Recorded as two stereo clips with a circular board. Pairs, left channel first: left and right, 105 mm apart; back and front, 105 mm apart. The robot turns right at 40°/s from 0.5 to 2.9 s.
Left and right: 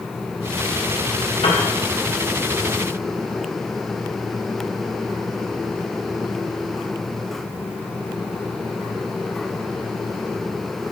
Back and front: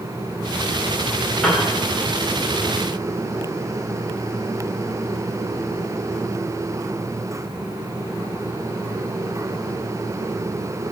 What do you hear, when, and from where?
1.4 s a piano: 95° left, 2.5 m; by 1.7 s 105° left, 2.5 m